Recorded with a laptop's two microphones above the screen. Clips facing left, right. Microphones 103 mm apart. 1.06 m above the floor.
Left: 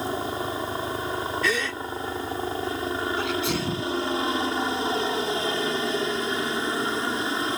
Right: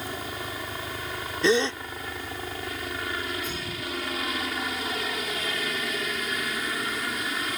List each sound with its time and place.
0.0 s a helicopter: 30° left (ahead or behind)
1.4 s a gasp: 25° right (ahead or behind)
3.2 s a sneeze: 85° left